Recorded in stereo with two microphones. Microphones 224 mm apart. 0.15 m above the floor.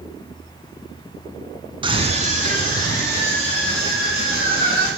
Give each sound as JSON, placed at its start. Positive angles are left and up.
{"t": 1.8, "sound": "a scream", "side_deg": -20, "distance_m": 1.2}